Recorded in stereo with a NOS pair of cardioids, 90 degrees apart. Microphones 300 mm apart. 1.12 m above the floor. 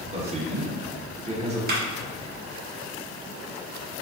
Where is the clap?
35° right, 1.5 m.